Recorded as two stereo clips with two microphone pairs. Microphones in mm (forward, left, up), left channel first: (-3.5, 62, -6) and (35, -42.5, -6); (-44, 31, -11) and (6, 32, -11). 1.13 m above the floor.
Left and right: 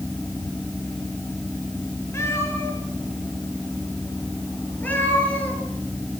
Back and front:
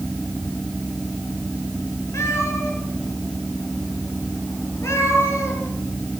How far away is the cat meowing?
About 9.5 m.